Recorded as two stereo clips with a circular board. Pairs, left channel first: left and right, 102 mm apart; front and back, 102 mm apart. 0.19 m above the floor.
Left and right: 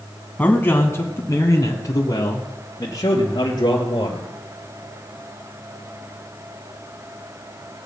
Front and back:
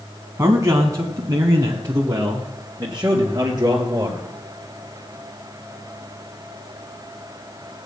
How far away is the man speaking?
About 1.2 m.